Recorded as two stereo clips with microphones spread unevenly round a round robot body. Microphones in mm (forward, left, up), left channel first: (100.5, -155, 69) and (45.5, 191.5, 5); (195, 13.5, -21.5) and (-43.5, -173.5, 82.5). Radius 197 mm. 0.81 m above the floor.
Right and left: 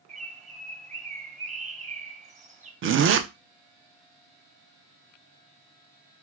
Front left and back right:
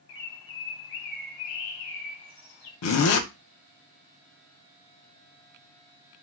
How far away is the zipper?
About 0.5 m.